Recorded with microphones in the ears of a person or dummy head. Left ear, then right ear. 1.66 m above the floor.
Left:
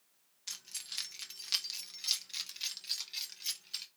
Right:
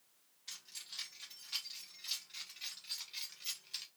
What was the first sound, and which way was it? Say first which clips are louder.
Keys jangling: left 5 dB; 70° left (ahead or behind).